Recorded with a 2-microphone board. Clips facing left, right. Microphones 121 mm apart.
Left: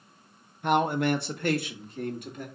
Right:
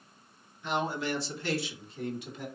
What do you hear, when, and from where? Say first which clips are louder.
0.6 s a man speaking: left 7 dB; 55° left (ahead or behind), 0.8 m; by 2.5 s 50° left (ahead or behind), 2.5 m